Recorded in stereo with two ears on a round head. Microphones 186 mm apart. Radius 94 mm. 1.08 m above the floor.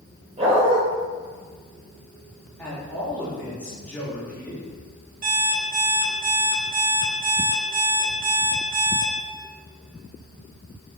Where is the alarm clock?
45° right (ahead or behind), 3 m.